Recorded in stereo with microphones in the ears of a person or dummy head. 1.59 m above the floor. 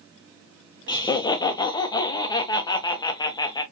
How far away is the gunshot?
No gunshot in this recording.